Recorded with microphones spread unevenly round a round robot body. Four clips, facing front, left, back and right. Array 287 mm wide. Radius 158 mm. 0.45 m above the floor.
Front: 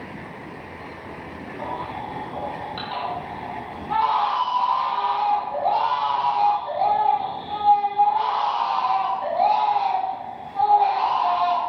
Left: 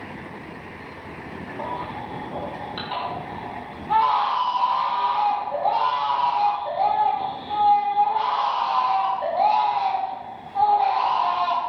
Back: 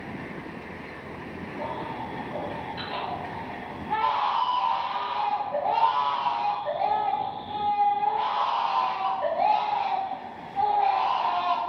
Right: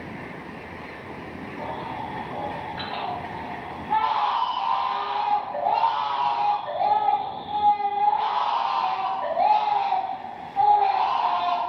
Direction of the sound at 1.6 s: 120° left.